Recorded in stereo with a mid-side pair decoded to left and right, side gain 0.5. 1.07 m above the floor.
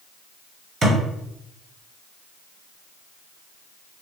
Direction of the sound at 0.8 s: 40° right.